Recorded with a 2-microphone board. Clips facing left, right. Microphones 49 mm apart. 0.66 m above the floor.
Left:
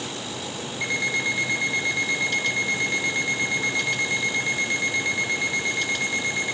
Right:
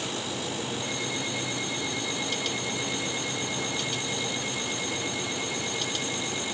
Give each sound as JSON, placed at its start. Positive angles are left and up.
{"t": 0.8, "sound": "an alarm clock", "side_deg": 80, "distance_m": 3.5}